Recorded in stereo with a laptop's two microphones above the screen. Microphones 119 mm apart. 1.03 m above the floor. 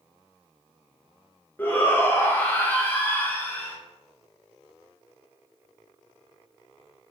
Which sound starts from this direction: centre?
A shout, at 1.6 s.